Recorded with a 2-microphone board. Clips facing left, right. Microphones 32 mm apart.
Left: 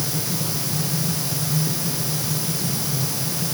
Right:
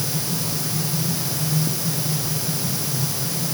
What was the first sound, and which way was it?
Only background noise.